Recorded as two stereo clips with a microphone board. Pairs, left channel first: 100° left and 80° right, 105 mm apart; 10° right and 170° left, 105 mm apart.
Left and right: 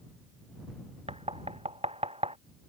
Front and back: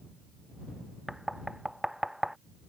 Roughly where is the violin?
I don't hear a violin.